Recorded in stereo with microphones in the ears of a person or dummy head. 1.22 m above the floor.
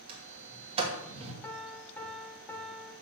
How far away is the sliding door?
About 2.5 m.